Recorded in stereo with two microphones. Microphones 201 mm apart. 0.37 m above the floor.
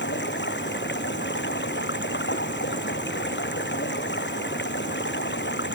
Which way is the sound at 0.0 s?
65° left (ahead or behind).